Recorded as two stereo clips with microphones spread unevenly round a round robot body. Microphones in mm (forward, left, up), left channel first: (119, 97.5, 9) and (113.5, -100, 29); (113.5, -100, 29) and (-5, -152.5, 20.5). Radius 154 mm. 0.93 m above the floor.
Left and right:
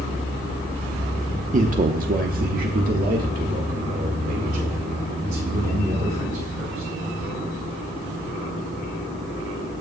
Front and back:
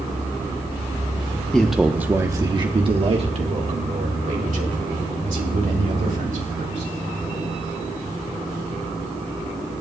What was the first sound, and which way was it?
A man speaking, 60° right.